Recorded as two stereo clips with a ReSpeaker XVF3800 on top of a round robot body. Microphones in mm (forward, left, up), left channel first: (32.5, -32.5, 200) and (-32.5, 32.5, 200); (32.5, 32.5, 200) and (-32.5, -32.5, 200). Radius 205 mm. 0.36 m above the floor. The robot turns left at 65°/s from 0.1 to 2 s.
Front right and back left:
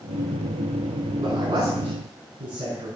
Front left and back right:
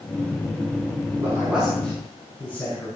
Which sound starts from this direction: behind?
A man speaking, at 1.2 s.